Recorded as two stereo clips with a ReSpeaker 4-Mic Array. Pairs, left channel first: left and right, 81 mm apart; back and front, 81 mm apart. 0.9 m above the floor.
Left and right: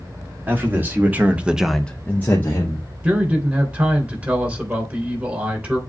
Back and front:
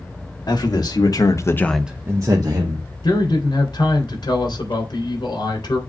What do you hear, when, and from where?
0.5 s a man speaking: 155° right, 1.8 m; by 2.9 s 30° left, 1.5 m
3.0 s a man speaking: 160° right, 3 m